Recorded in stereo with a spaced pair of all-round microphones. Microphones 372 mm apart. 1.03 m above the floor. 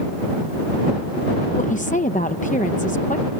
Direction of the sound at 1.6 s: 20° left (ahead or behind).